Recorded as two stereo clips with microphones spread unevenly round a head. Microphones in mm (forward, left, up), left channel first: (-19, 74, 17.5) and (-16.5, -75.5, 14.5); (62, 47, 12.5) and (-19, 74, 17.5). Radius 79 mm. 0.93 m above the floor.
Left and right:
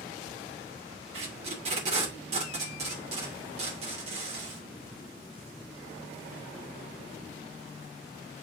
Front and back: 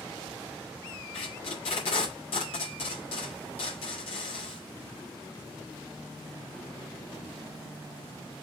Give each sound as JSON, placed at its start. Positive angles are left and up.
{"t": 1.1, "sound": "tape being pulled", "azimuth_deg": -40, "distance_m": 2.5}